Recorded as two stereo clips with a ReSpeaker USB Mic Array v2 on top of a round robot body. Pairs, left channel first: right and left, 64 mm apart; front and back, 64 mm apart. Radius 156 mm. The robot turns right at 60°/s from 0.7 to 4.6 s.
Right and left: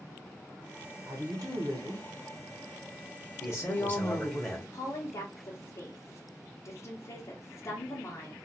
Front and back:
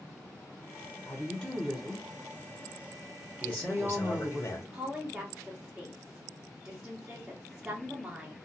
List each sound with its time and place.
1.1 s a woman speaking: 55° left, 1.2 m; by 4.4 s 100° right, 1.2 m
3.4 s a man speaking: 70° right, 1.1 m; by 4.6 s 5° left, 1.1 m
4.7 s a woman speaking: 105° right, 0.9 m